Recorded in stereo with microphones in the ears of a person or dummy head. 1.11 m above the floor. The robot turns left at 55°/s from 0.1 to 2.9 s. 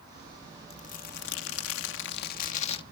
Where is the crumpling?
150° left; by 2.8 s 35° left.